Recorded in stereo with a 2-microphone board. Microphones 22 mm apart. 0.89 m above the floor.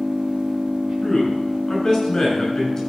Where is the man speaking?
30° left (ahead or behind), 5.5 m.